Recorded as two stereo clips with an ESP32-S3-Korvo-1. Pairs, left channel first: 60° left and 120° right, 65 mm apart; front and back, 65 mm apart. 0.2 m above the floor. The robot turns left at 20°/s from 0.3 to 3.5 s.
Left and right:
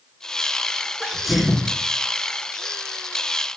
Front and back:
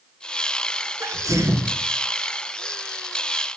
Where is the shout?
I don't hear a shout.